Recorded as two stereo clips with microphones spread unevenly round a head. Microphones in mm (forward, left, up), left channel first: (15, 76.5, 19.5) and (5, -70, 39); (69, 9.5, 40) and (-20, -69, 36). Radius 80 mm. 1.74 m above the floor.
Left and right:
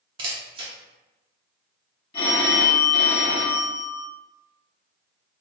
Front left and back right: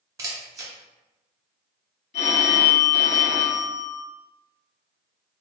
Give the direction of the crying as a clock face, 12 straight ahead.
No crying in this recording.